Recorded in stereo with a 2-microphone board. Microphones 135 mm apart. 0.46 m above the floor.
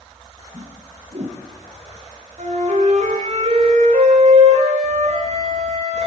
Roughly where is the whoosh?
Right.